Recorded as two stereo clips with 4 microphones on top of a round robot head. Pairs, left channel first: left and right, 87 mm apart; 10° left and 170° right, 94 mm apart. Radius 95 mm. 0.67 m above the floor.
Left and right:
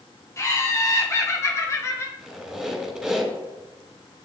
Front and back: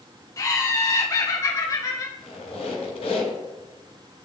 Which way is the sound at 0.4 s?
45° left.